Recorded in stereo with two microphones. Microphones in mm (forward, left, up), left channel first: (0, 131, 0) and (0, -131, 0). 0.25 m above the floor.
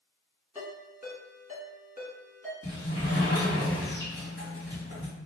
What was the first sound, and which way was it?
A ringtone, 10° right (ahead or behind).